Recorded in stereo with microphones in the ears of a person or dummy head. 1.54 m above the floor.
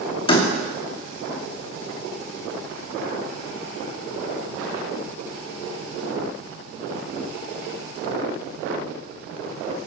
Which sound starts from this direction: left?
A door slam, at 0.3 s.